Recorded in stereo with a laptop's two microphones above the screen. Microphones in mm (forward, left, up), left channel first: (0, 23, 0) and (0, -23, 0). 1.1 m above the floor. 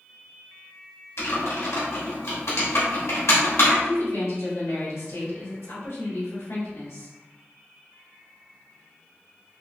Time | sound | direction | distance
1.2 | typing on a keyboard | 75° left (ahead or behind) | 1.6 m
3.8 | a woman speaking | 80° left | 1.8 m